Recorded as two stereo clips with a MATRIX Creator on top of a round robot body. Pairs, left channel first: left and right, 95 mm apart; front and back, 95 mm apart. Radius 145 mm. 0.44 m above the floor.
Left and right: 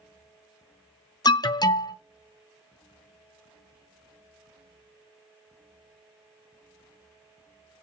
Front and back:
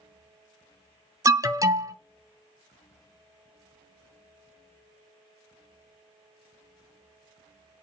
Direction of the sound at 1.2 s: 130° left.